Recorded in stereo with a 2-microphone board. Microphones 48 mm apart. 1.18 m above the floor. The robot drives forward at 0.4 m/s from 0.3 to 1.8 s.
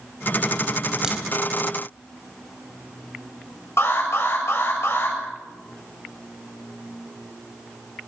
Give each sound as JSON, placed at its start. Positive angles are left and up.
{"t": 1.0, "sound": "a crack", "side_deg": -15, "distance_m": 3.5}
{"t": 3.8, "sound": "an alarm", "side_deg": 60, "distance_m": 7.5}